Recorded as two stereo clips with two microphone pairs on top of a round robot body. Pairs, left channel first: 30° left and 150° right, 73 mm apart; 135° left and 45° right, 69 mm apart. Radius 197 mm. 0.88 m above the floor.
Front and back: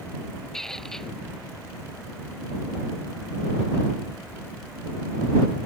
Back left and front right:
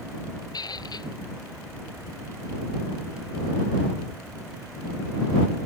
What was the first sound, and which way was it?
A squeak, 115° left.